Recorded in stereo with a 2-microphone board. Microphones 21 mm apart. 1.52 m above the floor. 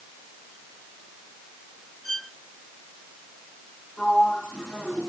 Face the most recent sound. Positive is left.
turn(degrees=30)  # may be behind; listen again after turning